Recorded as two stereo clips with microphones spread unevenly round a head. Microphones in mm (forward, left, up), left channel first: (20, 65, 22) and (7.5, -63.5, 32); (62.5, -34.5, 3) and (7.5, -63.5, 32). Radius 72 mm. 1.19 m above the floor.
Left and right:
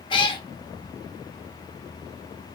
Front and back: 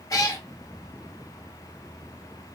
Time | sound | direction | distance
0.1 | a cat meowing | 70° left | 0.6 m